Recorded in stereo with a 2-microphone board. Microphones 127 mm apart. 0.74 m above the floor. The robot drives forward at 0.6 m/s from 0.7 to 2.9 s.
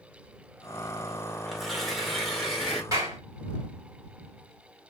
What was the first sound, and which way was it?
Tearing paper, centre (ahead or behind).